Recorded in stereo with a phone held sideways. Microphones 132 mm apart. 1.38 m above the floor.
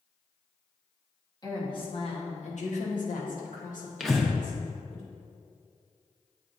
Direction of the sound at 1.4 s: 30° left (ahead or behind).